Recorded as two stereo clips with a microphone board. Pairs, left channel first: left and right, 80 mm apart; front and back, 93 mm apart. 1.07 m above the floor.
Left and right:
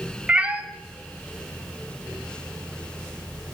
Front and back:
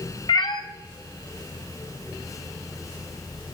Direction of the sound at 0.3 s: 15° right.